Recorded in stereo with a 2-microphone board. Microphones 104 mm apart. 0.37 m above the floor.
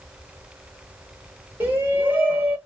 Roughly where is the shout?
Right.